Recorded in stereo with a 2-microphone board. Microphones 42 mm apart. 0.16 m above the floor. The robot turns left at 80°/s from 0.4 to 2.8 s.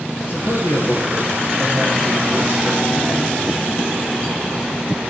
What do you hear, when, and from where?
0.3 s a man speaking: 105° left, 2.5 m; by 3.4 s 90° right, 2.5 m